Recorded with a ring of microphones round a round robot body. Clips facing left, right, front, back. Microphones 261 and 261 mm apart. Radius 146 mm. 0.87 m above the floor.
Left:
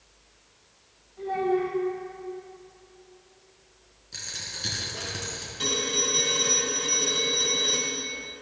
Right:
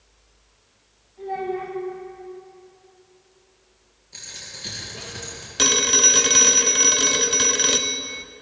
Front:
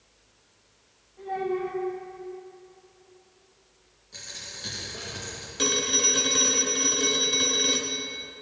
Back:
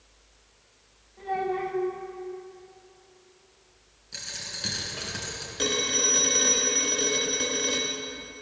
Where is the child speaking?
135° left, 4 m.